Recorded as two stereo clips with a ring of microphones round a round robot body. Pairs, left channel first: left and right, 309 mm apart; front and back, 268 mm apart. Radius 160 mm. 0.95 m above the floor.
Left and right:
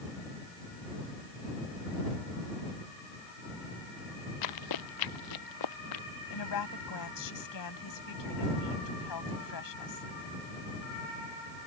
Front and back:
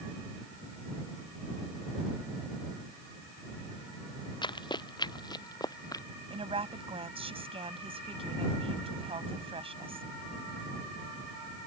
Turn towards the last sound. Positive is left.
turn(degrees=110)